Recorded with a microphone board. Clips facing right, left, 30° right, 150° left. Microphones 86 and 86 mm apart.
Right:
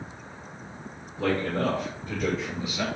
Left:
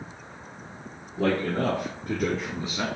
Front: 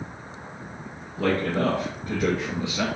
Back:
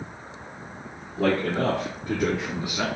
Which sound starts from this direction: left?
A man speaking, at 1.2 s.